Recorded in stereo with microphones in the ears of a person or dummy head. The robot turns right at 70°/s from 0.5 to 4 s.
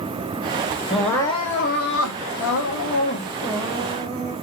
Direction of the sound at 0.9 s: 5° right.